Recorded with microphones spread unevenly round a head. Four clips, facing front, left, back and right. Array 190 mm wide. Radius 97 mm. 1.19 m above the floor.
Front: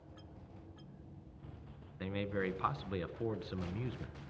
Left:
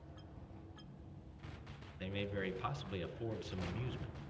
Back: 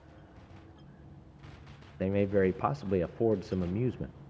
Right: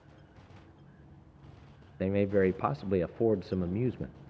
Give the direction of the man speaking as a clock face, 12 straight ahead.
4 o'clock.